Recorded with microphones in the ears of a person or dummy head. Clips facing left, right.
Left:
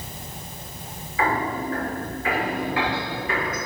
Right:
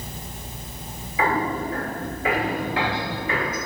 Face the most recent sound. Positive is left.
turn(degrees=-25)  # may be behind; listen again after turning